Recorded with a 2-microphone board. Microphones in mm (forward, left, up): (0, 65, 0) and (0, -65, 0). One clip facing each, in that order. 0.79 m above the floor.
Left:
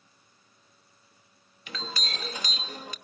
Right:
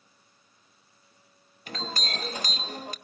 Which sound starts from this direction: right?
A clink, at 1.7 s.